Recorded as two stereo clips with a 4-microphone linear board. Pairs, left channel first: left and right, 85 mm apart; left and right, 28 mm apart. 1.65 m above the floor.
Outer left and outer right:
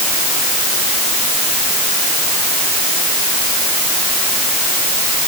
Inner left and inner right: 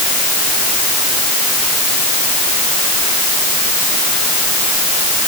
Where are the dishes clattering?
No dishes clattering in this recording.